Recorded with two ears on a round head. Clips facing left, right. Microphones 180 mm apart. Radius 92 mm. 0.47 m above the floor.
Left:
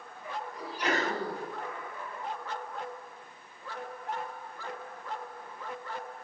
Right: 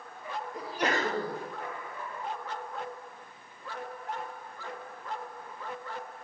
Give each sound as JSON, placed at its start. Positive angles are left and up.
{"t": 0.5, "sound": "a sneeze", "side_deg": -45, "distance_m": 3.0}